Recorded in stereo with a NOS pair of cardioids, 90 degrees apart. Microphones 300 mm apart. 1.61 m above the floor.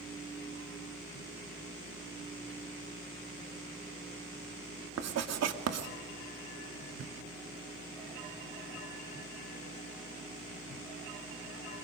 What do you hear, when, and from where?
0.0 s a fan: 15° right, 7.5 m
5.0 s writing: 60° right, 2.5 m
7.0 s a thud: 45° right, 5 m